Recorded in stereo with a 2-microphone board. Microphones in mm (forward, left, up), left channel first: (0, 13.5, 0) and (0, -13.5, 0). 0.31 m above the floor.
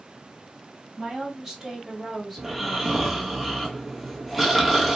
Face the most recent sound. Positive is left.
turn(degrees=-5)  # may be behind; listen again after turning